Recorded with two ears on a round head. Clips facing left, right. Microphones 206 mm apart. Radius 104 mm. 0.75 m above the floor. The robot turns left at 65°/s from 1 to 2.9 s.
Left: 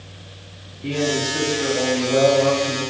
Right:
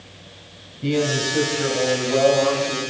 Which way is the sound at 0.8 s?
125° right.